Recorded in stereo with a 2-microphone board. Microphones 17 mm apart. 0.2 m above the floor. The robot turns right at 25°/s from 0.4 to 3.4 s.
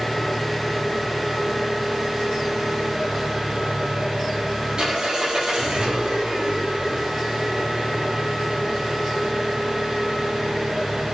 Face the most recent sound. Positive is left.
turn(degrees=-105)